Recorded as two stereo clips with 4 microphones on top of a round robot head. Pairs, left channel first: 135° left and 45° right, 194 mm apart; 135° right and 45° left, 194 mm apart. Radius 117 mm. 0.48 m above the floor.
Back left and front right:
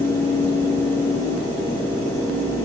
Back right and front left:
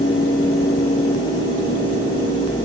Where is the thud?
No thud in this recording.